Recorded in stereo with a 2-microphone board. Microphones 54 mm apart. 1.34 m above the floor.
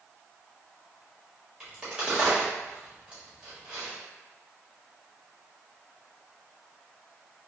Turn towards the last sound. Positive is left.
turn(degrees=-20)  # may be behind; listen again after turning